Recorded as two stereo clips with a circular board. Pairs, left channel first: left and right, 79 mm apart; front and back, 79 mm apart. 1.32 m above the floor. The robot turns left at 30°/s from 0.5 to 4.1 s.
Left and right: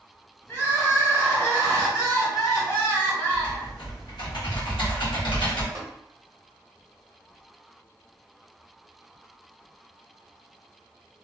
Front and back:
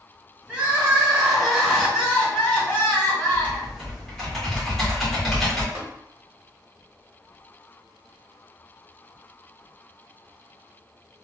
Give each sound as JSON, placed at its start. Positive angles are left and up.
{"t": 0.5, "sound": "crying", "azimuth_deg": 125, "distance_m": 1.2}
{"t": 3.3, "sound": "typing on a keyboard", "azimuth_deg": 110, "distance_m": 1.2}
{"t": 5.8, "sound": "tapping", "azimuth_deg": -130, "distance_m": 0.9}